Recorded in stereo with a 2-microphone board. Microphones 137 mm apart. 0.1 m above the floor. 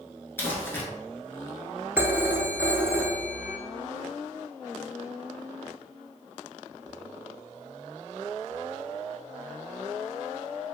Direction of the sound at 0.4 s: 15° left (ahead or behind).